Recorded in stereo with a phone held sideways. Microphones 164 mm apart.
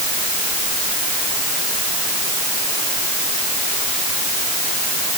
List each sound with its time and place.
Only background noise.